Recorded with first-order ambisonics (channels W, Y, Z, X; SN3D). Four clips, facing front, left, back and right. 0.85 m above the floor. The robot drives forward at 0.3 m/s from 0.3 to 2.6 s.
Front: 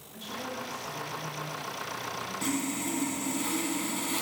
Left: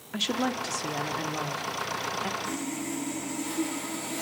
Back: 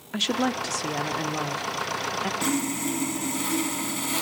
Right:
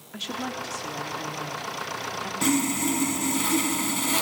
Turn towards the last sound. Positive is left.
turn(degrees=-110)